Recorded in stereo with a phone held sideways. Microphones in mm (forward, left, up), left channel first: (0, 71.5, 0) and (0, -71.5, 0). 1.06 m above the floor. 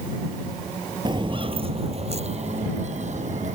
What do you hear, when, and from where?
1.1 s footsteps: 35° right (ahead or behind); by 3.5 s 60° right (ahead or behind)